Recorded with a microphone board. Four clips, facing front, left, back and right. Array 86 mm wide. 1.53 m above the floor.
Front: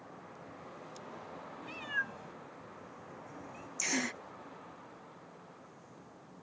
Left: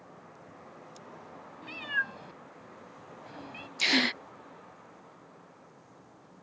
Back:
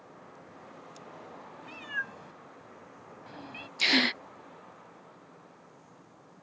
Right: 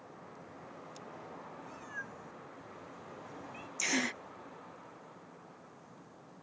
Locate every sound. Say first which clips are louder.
1.6 s a cat meowing: left 16 dB, back 1 dB; 85° left; by 3.7 s 155° left
3.8 s a gasp: left 6 dB, back 8 dB; 145° left